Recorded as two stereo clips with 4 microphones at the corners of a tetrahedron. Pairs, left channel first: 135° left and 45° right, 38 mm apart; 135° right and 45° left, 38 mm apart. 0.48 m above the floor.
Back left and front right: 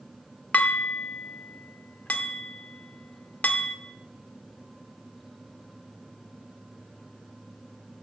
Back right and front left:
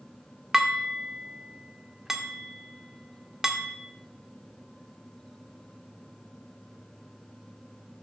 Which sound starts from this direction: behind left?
Dishes clattering, at 0.5 s.